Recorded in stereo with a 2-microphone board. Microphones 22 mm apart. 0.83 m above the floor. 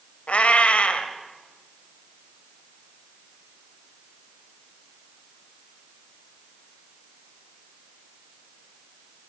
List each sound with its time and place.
0.3 s a cat meowing: 85° left, 2 m